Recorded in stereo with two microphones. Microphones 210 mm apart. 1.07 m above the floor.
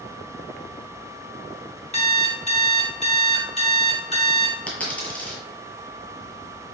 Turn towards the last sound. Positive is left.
turn(degrees=5)  # may be behind; listen again after turning